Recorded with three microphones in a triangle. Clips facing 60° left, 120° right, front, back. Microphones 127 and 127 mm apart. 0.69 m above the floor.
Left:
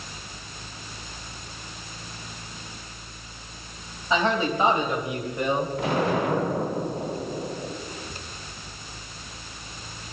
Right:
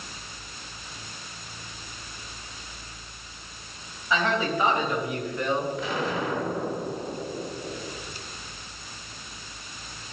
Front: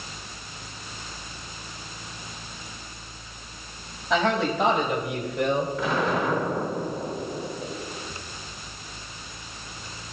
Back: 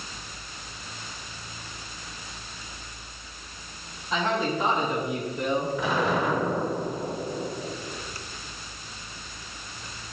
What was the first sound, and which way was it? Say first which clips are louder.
A man speaking: left 2 dB, front 3 dB; 5° right.